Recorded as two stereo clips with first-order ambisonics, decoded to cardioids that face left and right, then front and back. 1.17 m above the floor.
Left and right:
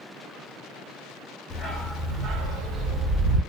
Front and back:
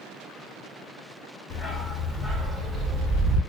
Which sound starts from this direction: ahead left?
A dog barking, at 1.5 s.